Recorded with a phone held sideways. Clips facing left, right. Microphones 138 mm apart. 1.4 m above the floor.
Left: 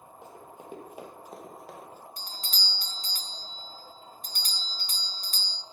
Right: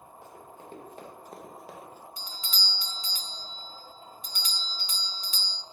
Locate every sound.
0.2 s running footsteps: 20° left (ahead or behind), 2.5 m; by 2.1 s 10° right (ahead or behind), 1.7 m
2.2 s a doorbell: 50° left (ahead or behind), 0.5 m